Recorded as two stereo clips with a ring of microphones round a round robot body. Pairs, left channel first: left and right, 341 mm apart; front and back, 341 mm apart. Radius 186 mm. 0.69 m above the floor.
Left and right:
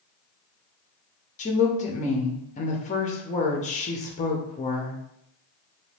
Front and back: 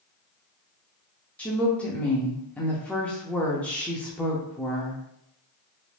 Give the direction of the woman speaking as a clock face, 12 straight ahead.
9 o'clock.